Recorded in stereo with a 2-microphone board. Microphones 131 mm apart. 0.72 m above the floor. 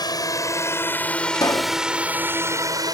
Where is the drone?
30° left (ahead or behind); by 2.9 s 30° right (ahead or behind).